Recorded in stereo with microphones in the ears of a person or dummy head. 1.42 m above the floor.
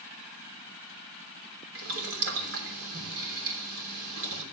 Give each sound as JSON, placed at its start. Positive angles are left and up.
{"t": 1.8, "sound": "boiling", "side_deg": -80, "distance_m": 3.0}